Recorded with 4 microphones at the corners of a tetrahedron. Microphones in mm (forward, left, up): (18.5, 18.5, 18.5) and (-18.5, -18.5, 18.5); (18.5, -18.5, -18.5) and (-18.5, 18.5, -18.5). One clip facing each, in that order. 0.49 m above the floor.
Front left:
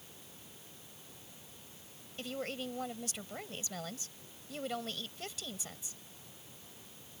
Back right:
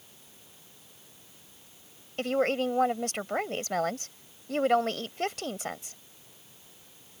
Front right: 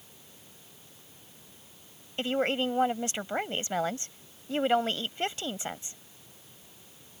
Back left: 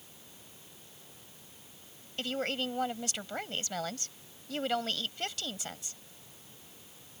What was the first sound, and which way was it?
A woman speaking, 105° right.